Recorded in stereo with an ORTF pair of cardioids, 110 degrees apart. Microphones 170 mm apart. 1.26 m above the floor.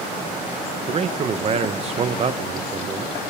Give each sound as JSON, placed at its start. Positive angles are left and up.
{"t": 0.9, "sound": "a man speaking", "azimuth_deg": -35, "distance_m": 0.9}